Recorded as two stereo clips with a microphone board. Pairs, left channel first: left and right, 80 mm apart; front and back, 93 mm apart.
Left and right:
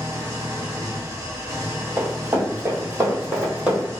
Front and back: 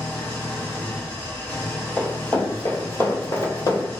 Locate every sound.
0.0 s an engine running: 60° right, 1.0 m
2.0 s running footsteps: 70° right, 1.9 m; by 3.9 s 20° right, 2 m